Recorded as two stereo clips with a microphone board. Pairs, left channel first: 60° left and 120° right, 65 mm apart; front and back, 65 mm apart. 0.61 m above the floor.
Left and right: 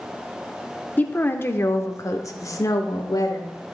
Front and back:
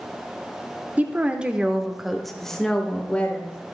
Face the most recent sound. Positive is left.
turn(degrees=65)